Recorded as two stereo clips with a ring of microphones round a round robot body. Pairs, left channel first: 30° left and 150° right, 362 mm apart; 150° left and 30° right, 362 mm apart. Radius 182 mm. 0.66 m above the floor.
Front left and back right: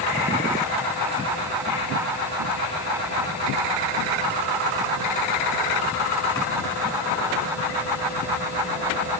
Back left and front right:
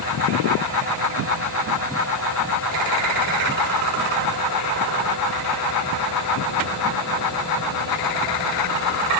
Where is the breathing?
I don't hear breathing.